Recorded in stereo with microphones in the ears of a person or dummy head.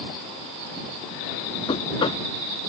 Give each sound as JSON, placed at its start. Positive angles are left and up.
{"t": 1.7, "sound": "knocking", "side_deg": 25}